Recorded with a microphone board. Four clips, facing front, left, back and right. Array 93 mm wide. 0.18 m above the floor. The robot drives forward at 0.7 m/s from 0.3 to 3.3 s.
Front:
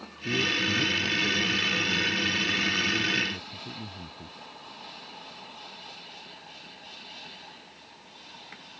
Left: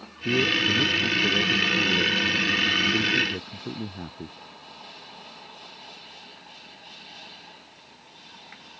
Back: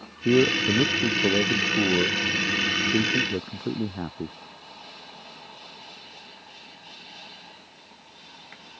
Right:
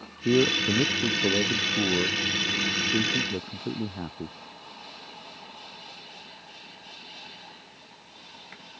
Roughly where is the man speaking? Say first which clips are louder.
Right 1 dB, back 8 dB; behind right.